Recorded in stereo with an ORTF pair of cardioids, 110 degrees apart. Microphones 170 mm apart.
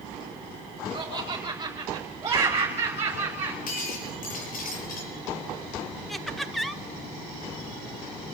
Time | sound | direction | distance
0.9 | laughter | 25° right | 6.5 m
3.7 | breaking glass | 60° left | 7 m
6.1 | laughter | straight ahead | 1.5 m